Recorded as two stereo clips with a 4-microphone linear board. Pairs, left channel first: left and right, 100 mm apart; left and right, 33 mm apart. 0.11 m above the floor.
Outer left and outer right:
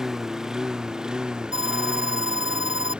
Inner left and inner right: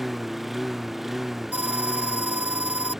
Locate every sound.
0.0 s a lawn mower: 5° right (ahead or behind); by 3.0 s 10° right (ahead or behind)
1.5 s an alarm: 65° right (ahead or behind)